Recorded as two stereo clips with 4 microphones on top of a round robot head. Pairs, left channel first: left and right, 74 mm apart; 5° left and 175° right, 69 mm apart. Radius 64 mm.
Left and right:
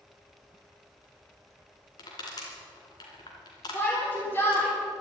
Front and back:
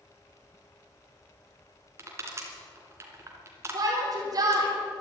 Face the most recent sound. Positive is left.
turn(degrees=155)